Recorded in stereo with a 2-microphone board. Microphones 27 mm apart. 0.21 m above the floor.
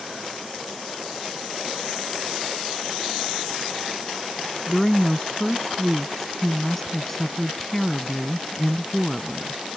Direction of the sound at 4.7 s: 10° left (ahead or behind).